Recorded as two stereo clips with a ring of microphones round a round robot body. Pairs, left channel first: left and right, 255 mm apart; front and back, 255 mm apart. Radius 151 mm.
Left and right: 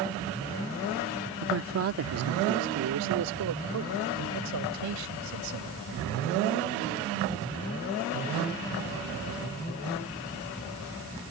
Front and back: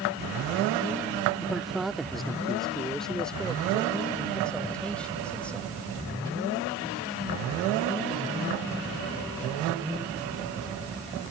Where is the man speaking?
95° right; by 5.8 s 85° right.